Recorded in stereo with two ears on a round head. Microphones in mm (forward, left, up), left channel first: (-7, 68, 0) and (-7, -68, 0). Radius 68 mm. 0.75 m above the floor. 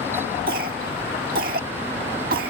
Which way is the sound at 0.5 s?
65° right (ahead or behind).